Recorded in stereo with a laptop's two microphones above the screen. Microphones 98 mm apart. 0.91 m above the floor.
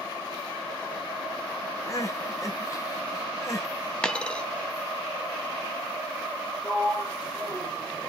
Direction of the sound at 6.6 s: 10° right (ahead or behind).